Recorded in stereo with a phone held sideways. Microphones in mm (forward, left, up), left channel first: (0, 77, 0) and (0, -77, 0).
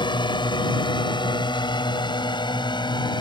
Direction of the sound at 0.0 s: 30° left (ahead or behind).